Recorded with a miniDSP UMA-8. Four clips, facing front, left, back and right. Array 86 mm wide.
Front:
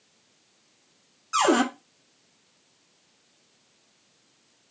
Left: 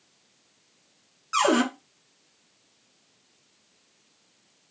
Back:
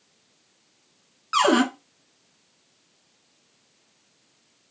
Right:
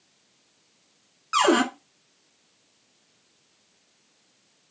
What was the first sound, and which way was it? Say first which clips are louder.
A cupboard door: right 2 dB, back 2 dB; 150° right.